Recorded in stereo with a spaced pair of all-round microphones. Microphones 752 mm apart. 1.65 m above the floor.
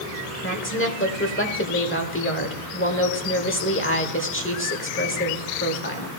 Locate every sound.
0.4 s a woman speaking: 15° left (ahead or behind), 1.2 m